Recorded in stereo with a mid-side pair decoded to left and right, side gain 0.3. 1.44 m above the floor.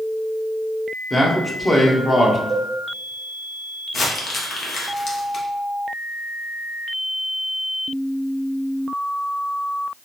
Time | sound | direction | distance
1.1 | a man speaking | 30° left | 1.0 m
2.5 | a cowbell | 25° left | 1.7 m
3.9 | crumpling | 65° left | 1.0 m